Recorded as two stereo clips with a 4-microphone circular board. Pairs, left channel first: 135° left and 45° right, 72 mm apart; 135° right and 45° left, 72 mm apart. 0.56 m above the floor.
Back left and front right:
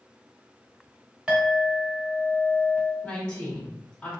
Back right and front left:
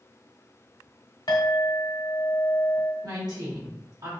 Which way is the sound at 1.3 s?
115° right.